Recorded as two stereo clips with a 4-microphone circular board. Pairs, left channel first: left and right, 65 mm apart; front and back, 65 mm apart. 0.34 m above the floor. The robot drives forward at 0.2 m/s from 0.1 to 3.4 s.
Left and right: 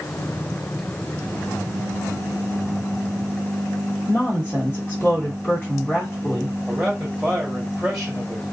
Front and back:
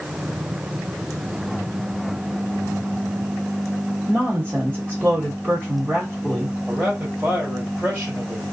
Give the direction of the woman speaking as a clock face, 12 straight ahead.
7 o'clock.